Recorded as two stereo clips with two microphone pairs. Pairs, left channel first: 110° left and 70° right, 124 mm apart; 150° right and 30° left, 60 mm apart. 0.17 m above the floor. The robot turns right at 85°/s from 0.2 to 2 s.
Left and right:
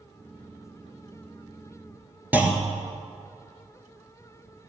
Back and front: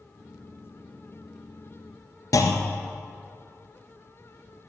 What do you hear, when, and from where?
2.3 s a clunk: 145° right, 1.3 m